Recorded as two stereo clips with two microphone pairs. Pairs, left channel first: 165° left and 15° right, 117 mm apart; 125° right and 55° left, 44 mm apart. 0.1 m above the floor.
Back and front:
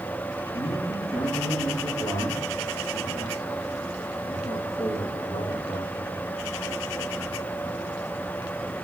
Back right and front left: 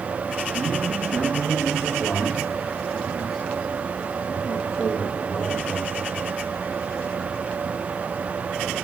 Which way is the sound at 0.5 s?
145° left.